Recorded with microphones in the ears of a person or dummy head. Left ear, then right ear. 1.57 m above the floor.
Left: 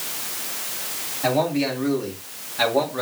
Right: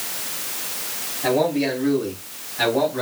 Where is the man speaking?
35° left (ahead or behind), 4 m; by 3.0 s 20° left (ahead or behind), 4 m.